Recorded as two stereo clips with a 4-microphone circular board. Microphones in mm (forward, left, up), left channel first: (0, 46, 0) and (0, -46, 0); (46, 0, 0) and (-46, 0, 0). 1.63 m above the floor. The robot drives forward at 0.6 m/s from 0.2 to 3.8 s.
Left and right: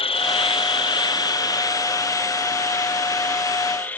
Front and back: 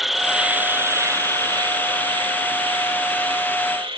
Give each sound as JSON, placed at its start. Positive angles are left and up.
{"t": 0.0, "sound": "an insect", "azimuth_deg": 95}